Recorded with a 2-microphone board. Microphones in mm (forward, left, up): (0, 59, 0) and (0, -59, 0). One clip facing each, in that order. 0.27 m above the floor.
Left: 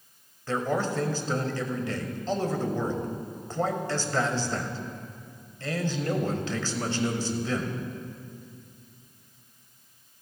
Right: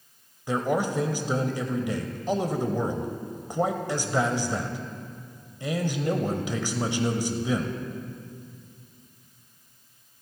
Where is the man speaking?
15° right (ahead or behind), 0.9 m.